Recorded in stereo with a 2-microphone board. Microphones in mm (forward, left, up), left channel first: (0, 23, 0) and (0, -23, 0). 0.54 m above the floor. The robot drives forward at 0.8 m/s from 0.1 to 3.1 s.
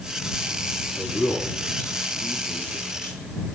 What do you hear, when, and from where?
0.9 s a man speaking: 45° left (ahead or behind), 9.5 m; by 3.3 s 40° left (ahead or behind), 10.5 m